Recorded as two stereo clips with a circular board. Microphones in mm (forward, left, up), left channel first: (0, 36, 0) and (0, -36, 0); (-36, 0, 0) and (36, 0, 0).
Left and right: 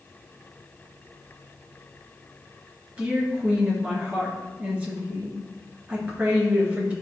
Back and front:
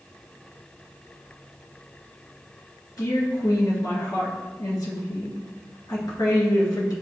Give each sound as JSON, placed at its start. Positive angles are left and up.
{"t": 3.0, "sound": "a woman speaking", "azimuth_deg": -160, "distance_m": 3.0}